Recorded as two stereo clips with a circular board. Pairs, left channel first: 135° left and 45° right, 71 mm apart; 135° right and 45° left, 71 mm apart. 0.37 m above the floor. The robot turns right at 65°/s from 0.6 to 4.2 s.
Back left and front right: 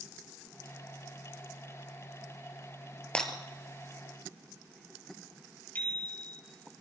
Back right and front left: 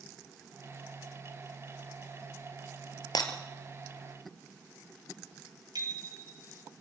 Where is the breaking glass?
150° right, 2.5 m; by 3.3 s 140° right, 2.5 m.